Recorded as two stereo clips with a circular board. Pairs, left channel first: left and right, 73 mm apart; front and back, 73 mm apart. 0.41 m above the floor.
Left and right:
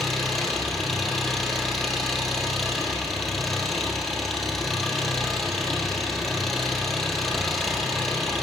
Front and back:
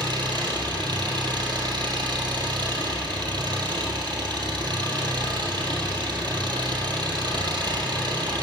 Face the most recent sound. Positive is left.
turn(degrees=180)